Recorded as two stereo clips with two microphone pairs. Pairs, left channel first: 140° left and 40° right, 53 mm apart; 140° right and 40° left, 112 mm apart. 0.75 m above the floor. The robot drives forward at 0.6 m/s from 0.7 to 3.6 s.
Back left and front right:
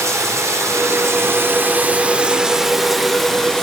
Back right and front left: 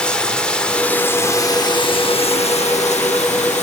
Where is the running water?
55° right, 1.1 m; by 3.6 s 140° right, 1.5 m.